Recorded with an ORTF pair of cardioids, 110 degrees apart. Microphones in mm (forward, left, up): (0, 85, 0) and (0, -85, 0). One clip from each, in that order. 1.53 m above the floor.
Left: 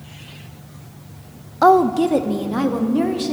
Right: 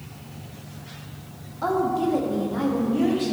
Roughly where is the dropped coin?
I don't hear a dropped coin.